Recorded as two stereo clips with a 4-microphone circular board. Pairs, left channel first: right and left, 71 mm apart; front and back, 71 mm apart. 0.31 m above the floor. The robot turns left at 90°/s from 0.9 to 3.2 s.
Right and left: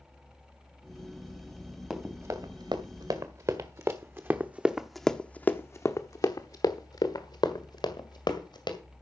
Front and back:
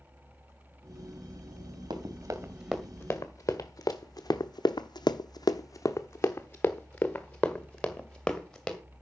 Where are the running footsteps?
Straight behind, 2.5 m; by 8.8 s 80° right, 3 m.